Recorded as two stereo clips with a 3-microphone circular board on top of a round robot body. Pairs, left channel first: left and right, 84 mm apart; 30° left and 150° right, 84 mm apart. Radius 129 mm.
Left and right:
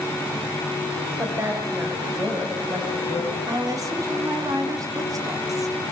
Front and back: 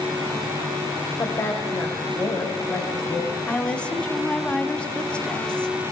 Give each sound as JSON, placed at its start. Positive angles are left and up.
{"t": 1.2, "sound": "a woman speaking", "azimuth_deg": -25, "distance_m": 4.0}
{"t": 3.5, "sound": "a woman speaking", "azimuth_deg": -45, "distance_m": 2.0}